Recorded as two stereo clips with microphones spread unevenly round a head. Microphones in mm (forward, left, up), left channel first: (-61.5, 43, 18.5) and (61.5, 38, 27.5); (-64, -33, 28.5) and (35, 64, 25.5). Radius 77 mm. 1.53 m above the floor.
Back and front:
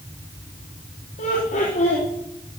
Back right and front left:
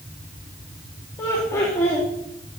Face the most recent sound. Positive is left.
turn(degrees=155)